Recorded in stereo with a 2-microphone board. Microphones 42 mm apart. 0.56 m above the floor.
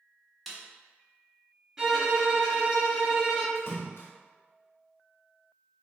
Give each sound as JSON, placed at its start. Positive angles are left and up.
{"t": 0.5, "sound": "a snare drum", "side_deg": 0, "distance_m": 0.7}
{"t": 1.8, "sound": "a violin", "side_deg": -15, "distance_m": 1.6}
{"t": 3.5, "sound": "a splash", "side_deg": 70, "distance_m": 0.8}